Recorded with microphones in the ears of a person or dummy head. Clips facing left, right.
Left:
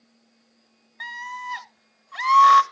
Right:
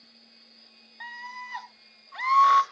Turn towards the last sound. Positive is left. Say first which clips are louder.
# left 6 dB
turn(degrees=60)  # may be behind; listen again after turning